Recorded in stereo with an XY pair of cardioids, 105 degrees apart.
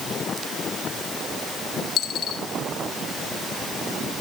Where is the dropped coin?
65° left, 1.9 m.